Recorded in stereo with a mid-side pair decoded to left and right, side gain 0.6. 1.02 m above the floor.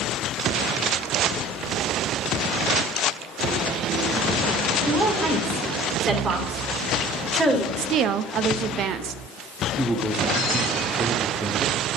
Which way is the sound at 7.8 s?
55° right.